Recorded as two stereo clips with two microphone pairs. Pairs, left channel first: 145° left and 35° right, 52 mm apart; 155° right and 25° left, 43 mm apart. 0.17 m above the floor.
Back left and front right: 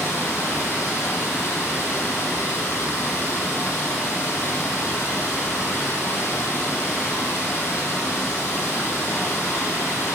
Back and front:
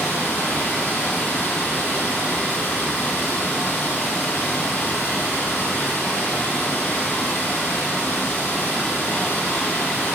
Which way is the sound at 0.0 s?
170° left.